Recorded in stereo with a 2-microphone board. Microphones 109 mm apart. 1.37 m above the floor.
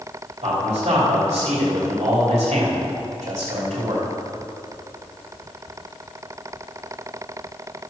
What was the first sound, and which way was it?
A man speaking, 80° right.